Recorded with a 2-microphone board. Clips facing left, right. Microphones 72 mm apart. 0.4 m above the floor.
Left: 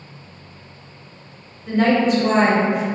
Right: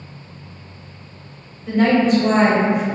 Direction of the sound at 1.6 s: Centre (ahead or behind).